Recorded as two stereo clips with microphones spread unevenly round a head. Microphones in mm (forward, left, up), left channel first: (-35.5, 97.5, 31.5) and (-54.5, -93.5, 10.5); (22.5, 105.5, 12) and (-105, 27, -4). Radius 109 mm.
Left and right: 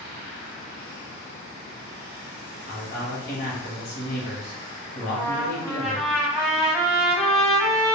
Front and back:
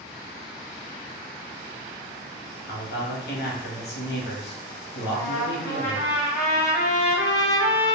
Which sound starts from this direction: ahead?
A trumpet, at 5.0 s.